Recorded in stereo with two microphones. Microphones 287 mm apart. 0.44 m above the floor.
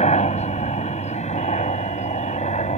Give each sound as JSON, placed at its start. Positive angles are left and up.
{"t": 0.0, "sound": "a helicopter", "side_deg": 25}